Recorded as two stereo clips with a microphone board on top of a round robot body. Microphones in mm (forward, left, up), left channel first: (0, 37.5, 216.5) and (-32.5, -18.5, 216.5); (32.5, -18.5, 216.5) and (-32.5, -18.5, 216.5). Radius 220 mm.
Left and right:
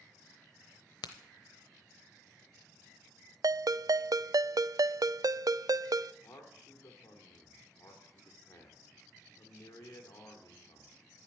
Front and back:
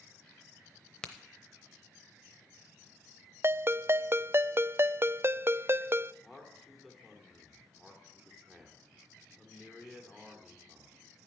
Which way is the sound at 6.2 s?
95° left.